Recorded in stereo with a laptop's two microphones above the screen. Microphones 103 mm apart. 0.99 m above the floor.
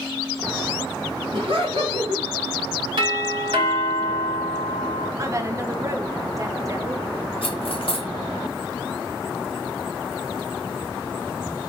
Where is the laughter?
65° right (ahead or behind), 1.9 m.